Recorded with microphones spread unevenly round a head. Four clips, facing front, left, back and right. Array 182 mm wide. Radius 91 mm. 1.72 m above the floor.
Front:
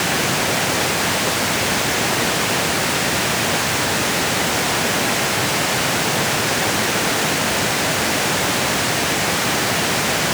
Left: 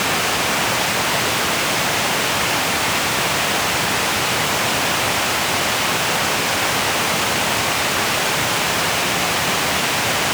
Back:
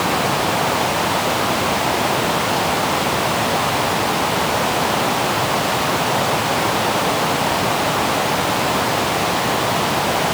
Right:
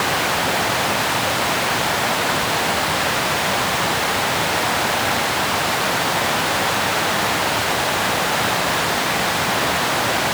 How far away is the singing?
No singing in this recording.